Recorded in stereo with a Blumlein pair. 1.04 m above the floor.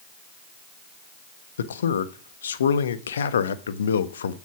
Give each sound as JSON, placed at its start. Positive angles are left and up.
{"t": 1.6, "sound": "a man speaking", "azimuth_deg": 65, "distance_m": 1.1}